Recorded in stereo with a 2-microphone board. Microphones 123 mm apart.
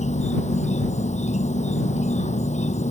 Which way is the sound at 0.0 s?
70° left (ahead or behind).